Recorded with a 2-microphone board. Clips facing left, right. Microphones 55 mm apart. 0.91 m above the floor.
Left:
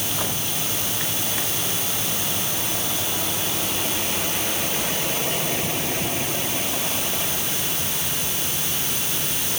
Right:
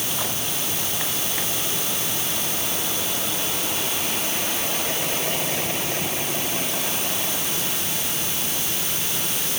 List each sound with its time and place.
Only background noise.